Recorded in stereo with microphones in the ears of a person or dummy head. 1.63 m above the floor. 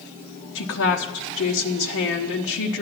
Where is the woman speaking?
65° left (ahead or behind), 0.9 m.